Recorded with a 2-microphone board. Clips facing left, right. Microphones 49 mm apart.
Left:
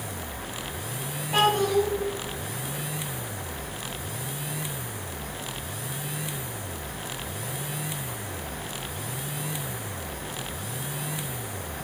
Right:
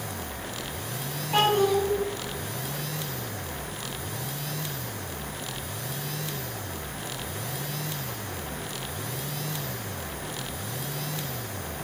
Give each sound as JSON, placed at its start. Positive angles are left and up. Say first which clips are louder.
{"t": 1.3, "sound": "a child speaking", "louder": "even", "side_deg": 5, "distance_m": 2.0}